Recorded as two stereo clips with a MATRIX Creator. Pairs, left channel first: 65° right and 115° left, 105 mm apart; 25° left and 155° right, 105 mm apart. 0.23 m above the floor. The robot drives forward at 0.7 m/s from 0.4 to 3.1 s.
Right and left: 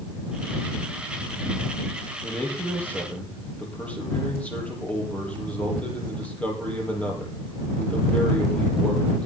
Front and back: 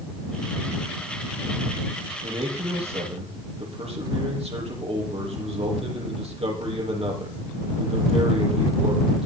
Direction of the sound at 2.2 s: 140° right.